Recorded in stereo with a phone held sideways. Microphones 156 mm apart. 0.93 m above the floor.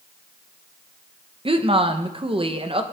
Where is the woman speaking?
35° right (ahead or behind), 0.6 m.